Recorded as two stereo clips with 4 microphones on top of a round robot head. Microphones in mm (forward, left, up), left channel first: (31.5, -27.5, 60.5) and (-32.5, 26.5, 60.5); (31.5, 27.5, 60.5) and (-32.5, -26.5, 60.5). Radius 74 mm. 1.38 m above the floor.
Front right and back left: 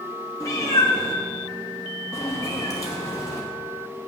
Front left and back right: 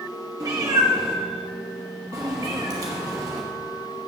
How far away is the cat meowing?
About 1.0 m.